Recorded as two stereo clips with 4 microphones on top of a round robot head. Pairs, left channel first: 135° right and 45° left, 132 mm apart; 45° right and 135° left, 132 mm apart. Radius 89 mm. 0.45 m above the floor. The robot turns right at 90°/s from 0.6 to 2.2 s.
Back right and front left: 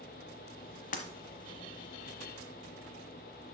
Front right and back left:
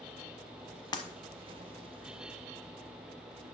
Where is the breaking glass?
105° right, 1.0 m; by 1.0 s 95° right, 1.0 m.